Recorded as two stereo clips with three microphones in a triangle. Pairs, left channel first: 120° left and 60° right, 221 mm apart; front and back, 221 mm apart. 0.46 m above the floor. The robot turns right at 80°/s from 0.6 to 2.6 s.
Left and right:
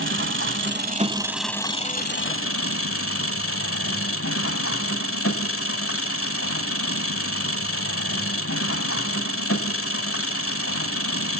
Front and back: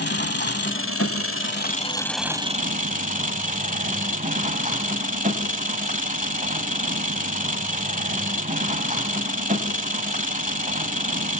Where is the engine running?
35° right, 1.1 m; by 11.4 s 125° left, 1.1 m.